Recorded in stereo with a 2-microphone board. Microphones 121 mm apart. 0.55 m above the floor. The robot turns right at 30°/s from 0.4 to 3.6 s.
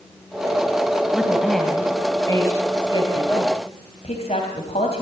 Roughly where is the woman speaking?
Centre.